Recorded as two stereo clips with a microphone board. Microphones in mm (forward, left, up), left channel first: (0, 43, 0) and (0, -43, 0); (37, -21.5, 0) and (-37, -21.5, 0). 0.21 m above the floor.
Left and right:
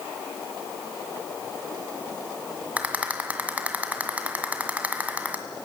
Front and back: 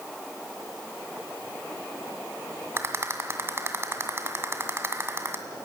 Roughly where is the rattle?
Behind right.